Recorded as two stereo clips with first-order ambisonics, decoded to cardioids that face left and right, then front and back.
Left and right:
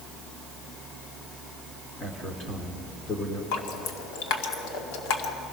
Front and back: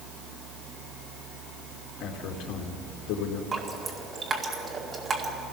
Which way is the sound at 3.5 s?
105° left.